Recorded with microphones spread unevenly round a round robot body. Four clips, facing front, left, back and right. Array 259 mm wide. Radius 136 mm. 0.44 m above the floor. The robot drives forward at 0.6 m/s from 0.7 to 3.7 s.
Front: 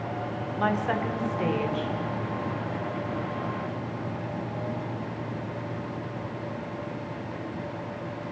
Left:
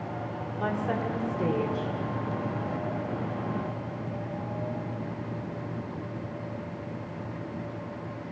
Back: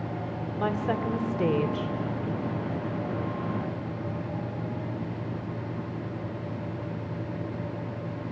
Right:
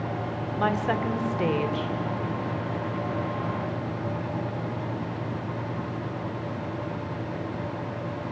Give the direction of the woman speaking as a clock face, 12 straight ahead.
6 o'clock.